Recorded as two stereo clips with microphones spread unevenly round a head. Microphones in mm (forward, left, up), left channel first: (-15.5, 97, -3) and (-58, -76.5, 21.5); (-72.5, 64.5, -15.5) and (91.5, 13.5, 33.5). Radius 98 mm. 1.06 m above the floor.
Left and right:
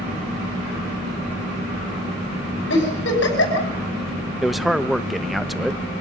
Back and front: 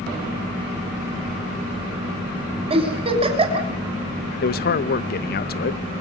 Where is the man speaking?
165° left, 1.0 m.